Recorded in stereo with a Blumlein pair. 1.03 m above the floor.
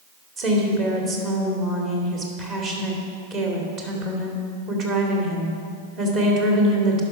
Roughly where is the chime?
No chime in this recording.